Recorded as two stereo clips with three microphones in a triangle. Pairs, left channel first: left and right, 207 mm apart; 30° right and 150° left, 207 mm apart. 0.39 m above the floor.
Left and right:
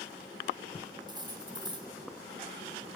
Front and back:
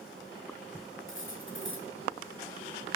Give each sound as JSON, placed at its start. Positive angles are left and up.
{"t": 1.1, "sound": "cutlery clinking", "azimuth_deg": -20, "distance_m": 1.8}